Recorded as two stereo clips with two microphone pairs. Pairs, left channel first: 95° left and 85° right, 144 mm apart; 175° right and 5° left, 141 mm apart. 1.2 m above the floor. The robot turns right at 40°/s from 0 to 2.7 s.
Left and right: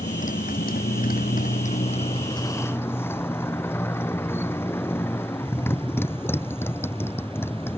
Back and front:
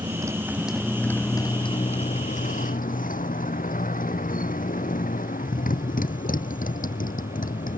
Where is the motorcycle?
65° left; by 7.8 s 170° left.